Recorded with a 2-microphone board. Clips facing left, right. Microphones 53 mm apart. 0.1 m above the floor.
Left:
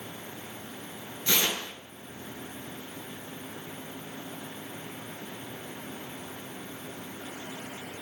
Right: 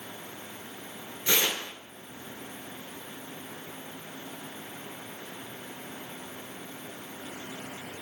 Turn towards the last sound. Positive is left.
turn(degrees=-15)  # may be behind; listen again after turning